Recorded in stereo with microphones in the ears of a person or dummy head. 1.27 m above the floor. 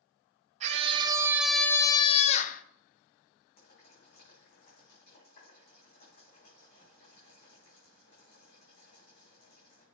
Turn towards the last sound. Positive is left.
turn(degrees=50)  # may be behind; listen again after turning